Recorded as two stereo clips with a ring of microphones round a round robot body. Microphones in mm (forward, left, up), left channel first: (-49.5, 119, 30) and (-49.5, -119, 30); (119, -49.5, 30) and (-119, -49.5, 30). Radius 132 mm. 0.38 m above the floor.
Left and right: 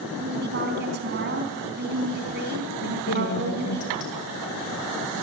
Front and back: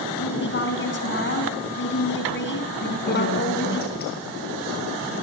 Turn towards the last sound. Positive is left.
turn(degrees=55)